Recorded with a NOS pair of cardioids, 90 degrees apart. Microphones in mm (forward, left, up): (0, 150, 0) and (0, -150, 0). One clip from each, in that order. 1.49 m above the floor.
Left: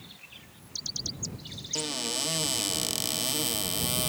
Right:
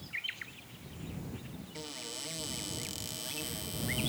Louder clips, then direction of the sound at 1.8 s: Left 11 dB; 60° left.